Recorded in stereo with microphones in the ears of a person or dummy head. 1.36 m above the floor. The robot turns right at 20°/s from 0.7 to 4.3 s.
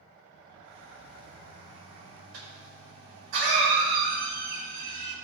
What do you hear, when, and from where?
2.3 s a cough: 100° right, 4.5 m; by 5.2 s 60° right, 4.5 m